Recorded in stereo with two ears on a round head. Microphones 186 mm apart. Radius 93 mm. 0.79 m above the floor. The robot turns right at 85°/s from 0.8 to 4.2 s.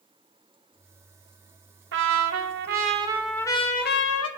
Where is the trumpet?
115° right, 1.3 m; by 4.3 s 75° left, 1.3 m.